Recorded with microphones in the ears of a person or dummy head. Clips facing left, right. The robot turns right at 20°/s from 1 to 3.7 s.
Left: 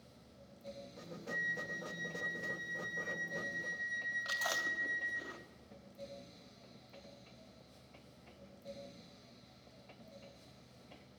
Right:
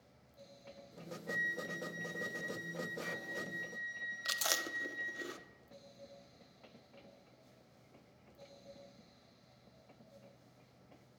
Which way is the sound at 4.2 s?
40° right (ahead or behind).